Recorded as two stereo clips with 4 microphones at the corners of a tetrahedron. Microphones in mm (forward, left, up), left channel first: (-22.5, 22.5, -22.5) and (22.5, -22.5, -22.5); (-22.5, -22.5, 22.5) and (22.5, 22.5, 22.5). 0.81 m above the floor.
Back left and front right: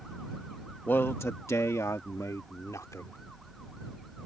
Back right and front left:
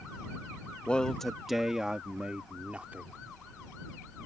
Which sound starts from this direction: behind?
A man speaking, at 0.9 s.